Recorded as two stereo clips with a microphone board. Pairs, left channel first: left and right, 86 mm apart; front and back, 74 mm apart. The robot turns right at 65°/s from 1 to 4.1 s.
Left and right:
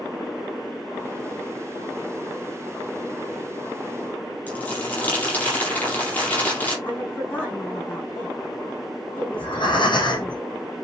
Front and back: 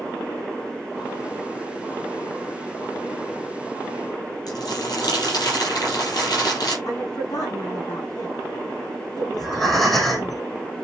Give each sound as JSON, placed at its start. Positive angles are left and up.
{"t": 4.5, "sound": "crumpling", "azimuth_deg": 20, "distance_m": 7.0}
{"t": 6.8, "sound": "a woman speaking", "azimuth_deg": 25, "distance_m": 6.5}
{"t": 9.3, "sound": "breathing", "azimuth_deg": 85, "distance_m": 3.5}